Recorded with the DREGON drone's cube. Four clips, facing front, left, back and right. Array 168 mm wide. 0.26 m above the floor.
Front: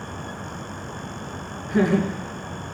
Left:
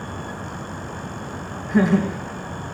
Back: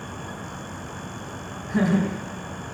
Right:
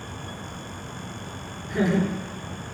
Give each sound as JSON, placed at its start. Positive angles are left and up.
{"t": 1.7, "sound": "laughter", "azimuth_deg": 100, "distance_m": 1.9}